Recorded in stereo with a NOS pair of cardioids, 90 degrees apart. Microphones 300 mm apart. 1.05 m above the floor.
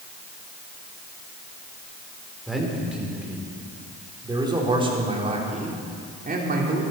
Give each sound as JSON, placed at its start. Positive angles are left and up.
{"t": 2.5, "sound": "a man speaking", "azimuth_deg": 0, "distance_m": 4.5}